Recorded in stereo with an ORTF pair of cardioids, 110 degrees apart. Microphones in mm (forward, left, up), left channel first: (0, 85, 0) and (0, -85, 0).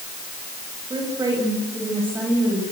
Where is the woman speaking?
25° right, 6 m; by 2.7 s 5° right, 6.5 m.